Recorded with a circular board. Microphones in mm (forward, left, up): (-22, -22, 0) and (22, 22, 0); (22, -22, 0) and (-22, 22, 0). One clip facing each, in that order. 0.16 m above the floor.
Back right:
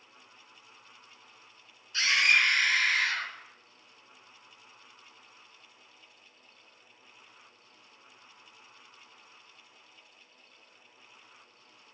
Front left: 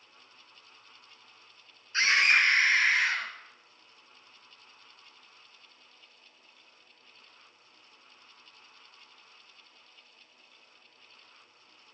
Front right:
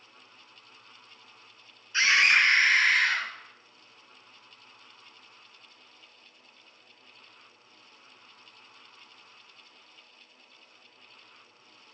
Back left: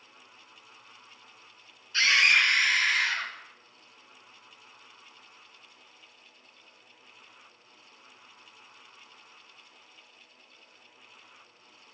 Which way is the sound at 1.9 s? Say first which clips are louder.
Front left 1 dB, front right 1 dB; 15° left.